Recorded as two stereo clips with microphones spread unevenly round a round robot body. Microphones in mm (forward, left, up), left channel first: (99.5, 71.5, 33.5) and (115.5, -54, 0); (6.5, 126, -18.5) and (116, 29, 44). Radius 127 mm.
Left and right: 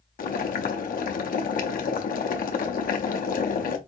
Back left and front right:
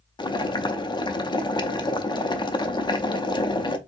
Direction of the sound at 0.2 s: 80° left.